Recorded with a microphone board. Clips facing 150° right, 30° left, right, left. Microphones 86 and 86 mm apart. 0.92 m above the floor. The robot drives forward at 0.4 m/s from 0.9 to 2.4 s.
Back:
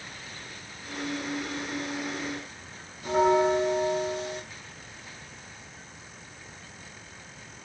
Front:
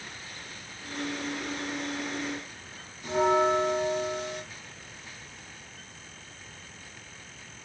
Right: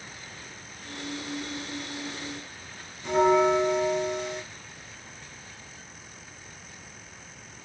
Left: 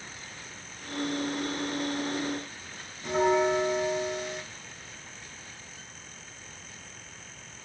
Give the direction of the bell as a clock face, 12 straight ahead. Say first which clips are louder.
Back 2 dB, right 3 dB; 6 o'clock.